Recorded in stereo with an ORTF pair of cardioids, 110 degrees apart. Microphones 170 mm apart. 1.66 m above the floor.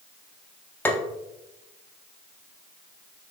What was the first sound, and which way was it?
Tapping, 10° left.